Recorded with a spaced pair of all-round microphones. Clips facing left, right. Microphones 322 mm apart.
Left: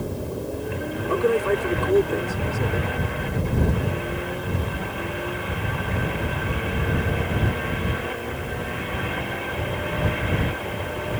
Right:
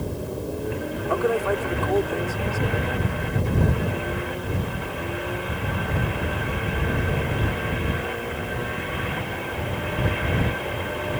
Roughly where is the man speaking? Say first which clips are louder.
Left 3 dB; left.